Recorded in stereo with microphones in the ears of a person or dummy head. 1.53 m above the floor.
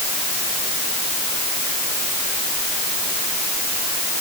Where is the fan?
No fan in this recording.